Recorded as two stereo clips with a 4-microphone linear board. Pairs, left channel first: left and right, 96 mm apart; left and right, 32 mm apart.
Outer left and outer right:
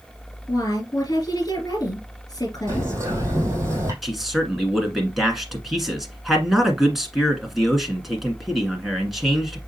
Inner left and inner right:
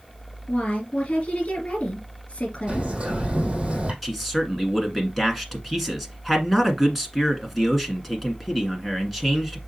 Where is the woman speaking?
45° left (ahead or behind), 2 m.